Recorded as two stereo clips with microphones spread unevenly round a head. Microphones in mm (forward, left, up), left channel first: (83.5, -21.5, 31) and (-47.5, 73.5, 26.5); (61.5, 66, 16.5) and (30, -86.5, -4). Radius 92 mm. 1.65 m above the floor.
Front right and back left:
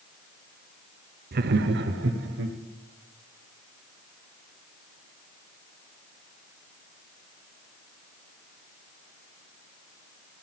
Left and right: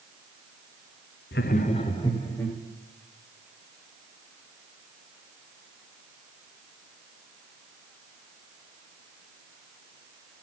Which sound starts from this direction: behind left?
Laughter, at 1.3 s.